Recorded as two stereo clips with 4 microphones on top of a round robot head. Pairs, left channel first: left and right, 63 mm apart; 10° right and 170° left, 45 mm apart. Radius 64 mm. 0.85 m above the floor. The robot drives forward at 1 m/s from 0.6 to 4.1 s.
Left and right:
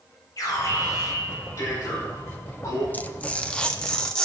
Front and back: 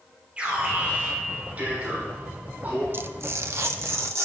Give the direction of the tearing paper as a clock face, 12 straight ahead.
7 o'clock.